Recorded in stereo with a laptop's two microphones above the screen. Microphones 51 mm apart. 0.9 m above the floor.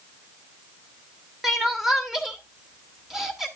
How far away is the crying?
About 2.5 m.